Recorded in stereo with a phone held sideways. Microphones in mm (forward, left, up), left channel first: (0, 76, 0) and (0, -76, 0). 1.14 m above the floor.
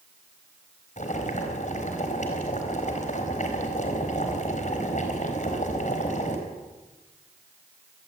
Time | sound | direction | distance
1.0 | boiling | 55° left (ahead or behind) | 4 m